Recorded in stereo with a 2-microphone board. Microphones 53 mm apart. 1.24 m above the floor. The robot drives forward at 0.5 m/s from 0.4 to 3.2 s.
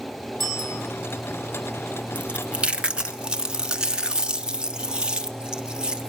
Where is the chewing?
25° right (ahead or behind), 1.0 m; by 6.1 s 15° right (ahead or behind), 1.5 m.